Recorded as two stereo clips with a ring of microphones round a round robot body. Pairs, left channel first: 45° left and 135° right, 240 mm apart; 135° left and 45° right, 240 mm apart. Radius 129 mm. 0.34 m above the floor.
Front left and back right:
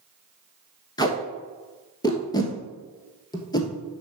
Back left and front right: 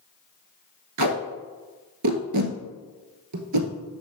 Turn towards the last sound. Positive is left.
turn(degrees=-30)